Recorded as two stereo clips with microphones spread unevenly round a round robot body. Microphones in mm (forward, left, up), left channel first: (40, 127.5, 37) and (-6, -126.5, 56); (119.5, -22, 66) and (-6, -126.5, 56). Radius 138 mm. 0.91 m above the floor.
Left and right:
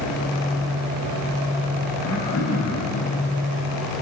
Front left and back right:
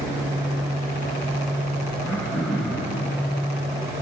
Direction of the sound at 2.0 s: 120° left.